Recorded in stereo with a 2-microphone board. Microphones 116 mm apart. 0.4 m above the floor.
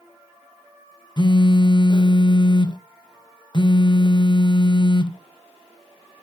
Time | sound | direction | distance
1.2 | a phone buzzing | 40° left (ahead or behind) | 0.6 m